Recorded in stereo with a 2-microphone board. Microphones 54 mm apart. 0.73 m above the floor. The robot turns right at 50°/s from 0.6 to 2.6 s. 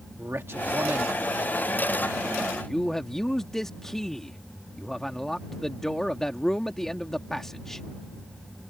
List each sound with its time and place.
0.2 s a man speaking: 90° right; by 7.9 s 10° left